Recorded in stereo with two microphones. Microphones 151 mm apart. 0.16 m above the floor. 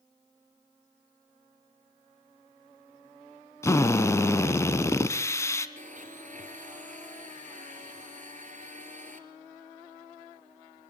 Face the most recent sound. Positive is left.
turn(degrees=-55)  # may be behind; listen again after turning